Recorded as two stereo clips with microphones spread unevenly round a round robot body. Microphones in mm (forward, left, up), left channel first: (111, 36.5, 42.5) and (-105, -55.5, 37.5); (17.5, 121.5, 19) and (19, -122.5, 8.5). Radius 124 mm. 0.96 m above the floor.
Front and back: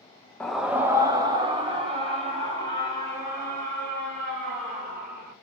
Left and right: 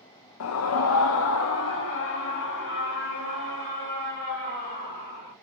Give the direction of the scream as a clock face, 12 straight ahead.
8 o'clock.